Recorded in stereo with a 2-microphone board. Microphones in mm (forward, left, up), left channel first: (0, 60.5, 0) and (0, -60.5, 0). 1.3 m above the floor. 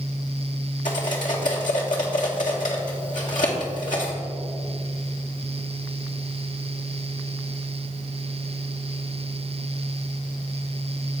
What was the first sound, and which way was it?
Cutlery clinking, 80° left.